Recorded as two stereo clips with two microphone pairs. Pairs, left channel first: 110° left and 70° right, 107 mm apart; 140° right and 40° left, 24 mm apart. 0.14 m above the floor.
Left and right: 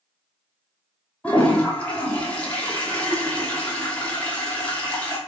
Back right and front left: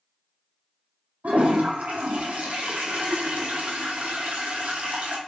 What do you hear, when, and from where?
1.2 s a toilet flushing: 35° left, 1.0 m